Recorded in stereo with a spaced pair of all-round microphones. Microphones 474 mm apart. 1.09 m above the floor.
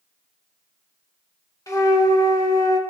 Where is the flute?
5° left (ahead or behind), 1.4 m.